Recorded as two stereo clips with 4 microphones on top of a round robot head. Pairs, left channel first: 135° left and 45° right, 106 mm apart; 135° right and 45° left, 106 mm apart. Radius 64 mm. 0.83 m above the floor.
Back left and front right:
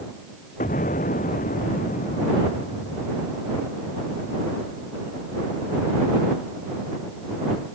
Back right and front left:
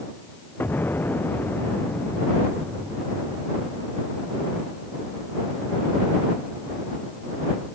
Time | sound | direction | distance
0.6 | an explosion | 150° left | ?